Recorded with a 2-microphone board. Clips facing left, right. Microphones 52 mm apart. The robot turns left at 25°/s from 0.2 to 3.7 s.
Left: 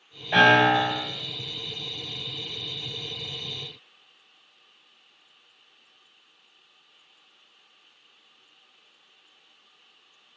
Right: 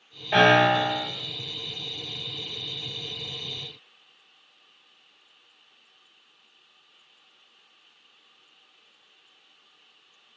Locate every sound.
0.3 s a piano: 20° right (ahead or behind), 1.8 m; by 1.1 s 5° right (ahead or behind), 1.8 m